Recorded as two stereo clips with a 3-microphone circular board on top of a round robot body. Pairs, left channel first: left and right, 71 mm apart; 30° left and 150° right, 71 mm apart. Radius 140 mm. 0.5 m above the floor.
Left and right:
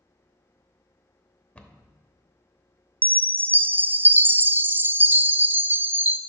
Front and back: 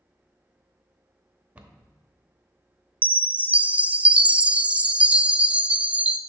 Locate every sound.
1.6 s a cupboard door: 150° left, 1.0 m
3.0 s a chime: 100° right, 0.6 m